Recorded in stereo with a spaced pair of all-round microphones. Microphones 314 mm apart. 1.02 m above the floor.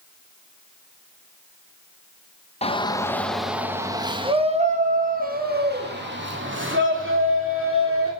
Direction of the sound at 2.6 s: 20° left (ahead or behind).